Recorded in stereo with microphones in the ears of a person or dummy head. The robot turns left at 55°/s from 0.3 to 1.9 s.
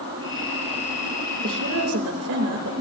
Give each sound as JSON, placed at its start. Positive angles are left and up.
{"t": 1.4, "sound": "a woman speaking", "side_deg": -55, "distance_m": 2.5}